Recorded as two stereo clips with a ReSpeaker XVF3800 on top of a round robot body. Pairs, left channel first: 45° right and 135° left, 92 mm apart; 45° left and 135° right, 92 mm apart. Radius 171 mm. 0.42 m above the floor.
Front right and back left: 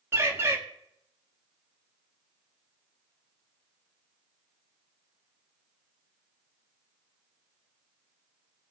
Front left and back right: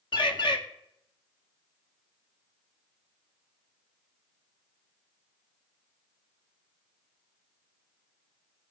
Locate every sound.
0.1 s a bird: 75° left, 2 m